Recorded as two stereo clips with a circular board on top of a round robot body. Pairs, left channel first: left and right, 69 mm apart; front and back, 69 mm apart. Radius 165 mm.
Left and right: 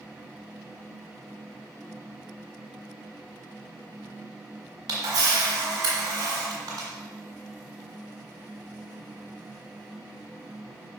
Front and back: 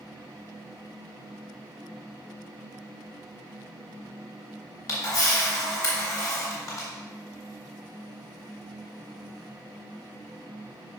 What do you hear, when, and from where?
4.9 s a camera shutter: 50° right, 1.6 m